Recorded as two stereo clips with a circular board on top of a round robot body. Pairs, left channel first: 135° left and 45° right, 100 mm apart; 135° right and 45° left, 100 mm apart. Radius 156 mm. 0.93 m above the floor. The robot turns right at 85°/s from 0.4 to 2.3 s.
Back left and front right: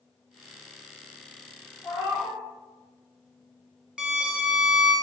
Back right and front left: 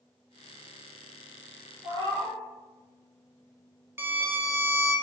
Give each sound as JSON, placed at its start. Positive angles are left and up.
{"t": 1.8, "sound": "a cat meowing", "azimuth_deg": 65, "distance_m": 1.3}
{"t": 4.0, "sound": "a violin", "azimuth_deg": 20, "distance_m": 0.9}